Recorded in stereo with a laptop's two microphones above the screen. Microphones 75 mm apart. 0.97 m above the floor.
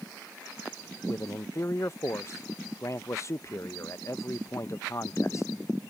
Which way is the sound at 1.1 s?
40° left (ahead or behind).